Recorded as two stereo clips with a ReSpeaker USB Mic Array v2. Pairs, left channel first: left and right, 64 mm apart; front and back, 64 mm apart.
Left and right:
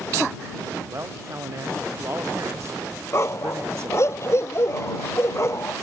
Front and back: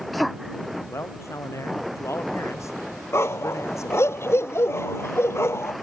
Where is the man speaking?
45° right.